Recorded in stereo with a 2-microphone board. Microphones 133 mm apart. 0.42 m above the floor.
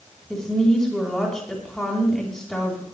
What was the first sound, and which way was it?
A woman speaking, 5° left (ahead or behind).